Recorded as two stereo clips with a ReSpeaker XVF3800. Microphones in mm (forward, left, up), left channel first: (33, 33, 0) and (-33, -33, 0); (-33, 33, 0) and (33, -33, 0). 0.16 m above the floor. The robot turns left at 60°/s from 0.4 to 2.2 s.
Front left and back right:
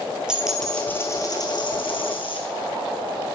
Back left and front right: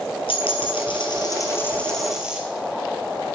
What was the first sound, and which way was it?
A dropped coin, 145° left.